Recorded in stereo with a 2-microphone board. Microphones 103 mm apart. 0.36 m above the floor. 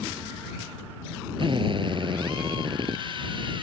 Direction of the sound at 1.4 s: 55° right (ahead or behind).